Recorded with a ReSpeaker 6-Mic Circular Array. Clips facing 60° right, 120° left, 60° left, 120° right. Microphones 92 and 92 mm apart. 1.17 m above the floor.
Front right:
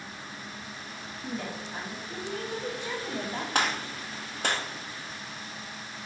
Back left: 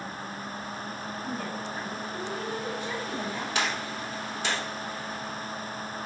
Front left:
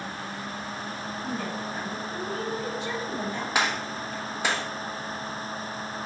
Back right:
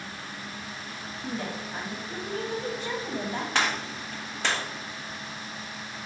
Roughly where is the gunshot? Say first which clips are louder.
Front right 3 dB, front left 2 dB; ahead.